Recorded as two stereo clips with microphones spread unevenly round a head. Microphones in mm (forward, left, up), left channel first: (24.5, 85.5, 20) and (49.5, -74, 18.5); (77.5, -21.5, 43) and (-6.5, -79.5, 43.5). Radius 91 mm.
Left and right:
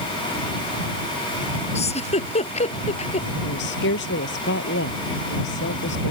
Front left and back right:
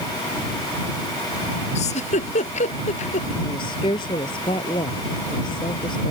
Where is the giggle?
50° left.